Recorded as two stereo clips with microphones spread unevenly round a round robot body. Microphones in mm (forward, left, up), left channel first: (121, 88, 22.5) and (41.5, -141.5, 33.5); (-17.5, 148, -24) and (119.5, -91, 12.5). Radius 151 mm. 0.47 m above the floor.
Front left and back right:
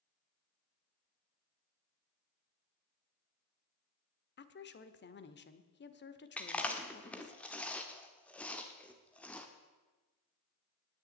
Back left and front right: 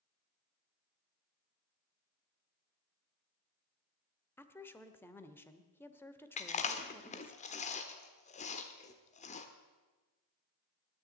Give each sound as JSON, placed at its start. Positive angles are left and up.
{"t": 4.4, "sound": "a woman speaking", "azimuth_deg": 45, "distance_m": 1.3}
{"t": 6.4, "sound": "chewing", "azimuth_deg": 150, "distance_m": 1.1}